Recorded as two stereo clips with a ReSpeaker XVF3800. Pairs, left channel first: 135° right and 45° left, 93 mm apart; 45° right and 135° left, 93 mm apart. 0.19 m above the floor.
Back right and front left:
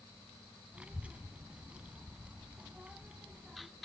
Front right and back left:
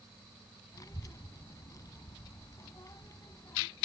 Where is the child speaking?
25° right, 0.7 m.